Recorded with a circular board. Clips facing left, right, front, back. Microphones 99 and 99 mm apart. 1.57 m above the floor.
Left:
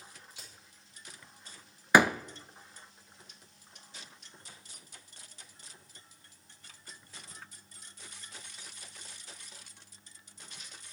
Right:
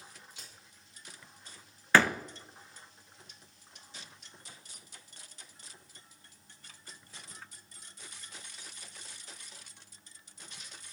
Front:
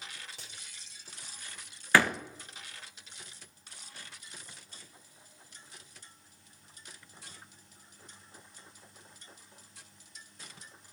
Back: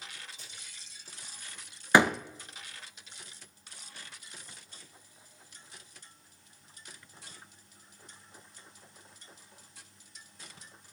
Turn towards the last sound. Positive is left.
turn(degrees=145)